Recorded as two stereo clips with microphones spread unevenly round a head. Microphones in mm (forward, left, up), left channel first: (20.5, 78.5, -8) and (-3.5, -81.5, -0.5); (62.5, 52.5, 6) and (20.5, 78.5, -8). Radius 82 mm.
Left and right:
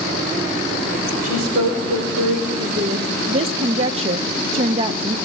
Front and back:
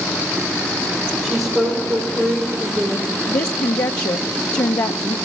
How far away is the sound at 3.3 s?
About 0.5 m.